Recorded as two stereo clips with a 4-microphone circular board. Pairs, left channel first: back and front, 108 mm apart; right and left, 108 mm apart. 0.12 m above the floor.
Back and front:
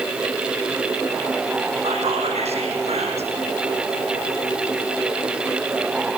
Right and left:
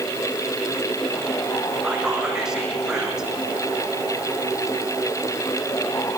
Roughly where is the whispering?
Ahead.